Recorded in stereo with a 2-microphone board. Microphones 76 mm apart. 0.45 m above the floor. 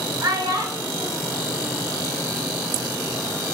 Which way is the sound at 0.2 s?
55° right (ahead or behind).